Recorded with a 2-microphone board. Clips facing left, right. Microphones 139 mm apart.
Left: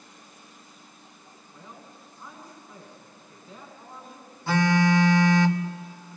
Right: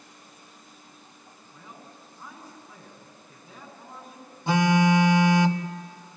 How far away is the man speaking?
About 8 m.